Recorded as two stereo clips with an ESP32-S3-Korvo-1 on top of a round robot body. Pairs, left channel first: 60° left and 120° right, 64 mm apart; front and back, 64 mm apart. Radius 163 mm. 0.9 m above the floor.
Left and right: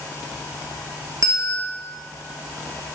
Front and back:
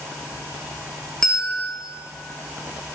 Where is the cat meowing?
No cat meowing in this recording.